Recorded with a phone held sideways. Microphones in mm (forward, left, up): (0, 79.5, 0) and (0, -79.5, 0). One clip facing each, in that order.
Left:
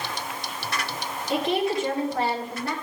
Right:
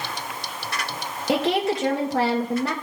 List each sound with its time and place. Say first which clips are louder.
1.3 s a woman speaking: right 3 dB; 85° right, 2.5 m